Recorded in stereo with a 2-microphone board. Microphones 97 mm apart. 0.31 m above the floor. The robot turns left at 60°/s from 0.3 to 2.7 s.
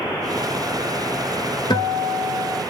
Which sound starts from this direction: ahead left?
A guitar, at 1.7 s.